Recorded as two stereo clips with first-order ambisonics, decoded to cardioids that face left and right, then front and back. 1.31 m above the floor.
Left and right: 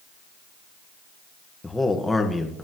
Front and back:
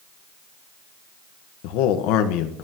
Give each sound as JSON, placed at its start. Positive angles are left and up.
{"t": 1.6, "sound": "a man speaking", "azimuth_deg": 5, "distance_m": 1.3}